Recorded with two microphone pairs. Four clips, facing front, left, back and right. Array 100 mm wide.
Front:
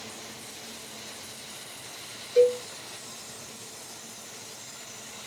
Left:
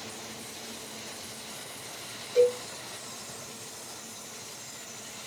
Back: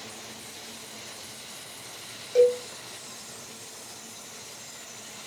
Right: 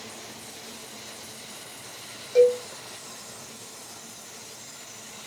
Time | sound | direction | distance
2.4 | a cowbell | 135° right | 2 m